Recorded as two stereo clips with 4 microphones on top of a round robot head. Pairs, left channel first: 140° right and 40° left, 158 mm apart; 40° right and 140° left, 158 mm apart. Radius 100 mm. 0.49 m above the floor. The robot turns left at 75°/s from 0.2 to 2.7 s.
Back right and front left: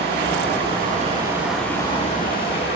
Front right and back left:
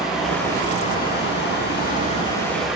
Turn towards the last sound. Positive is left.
turn(degrees=-135)